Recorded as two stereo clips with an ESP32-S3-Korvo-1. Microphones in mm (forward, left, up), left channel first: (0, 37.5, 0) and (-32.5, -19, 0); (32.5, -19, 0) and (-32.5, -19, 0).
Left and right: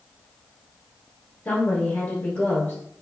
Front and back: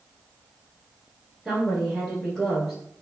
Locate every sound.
1.4 s a woman speaking: 85° left, 1.5 m